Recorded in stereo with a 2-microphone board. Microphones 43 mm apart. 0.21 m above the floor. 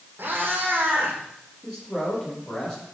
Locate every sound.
0.2 s a cat meowing: 55° right (ahead or behind), 4.5 m
1.6 s a man speaking: 15° left (ahead or behind), 6.5 m